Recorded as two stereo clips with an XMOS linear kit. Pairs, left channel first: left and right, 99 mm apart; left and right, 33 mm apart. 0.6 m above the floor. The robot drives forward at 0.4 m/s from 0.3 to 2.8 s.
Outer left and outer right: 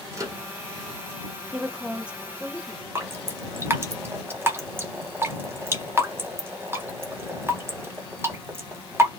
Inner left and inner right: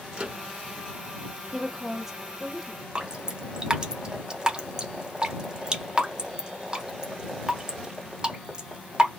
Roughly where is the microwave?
Right.